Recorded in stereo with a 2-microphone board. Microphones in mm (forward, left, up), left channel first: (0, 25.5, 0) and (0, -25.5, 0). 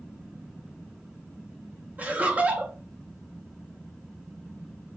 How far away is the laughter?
About 0.6 m.